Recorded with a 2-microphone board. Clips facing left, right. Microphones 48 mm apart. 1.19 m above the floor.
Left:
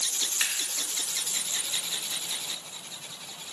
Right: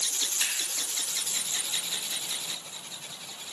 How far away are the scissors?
About 2.5 m.